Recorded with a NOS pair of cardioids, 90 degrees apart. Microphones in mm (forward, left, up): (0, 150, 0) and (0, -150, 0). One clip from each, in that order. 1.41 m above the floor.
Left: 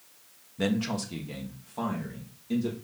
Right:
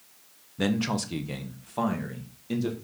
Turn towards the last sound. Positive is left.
turn(degrees=-40)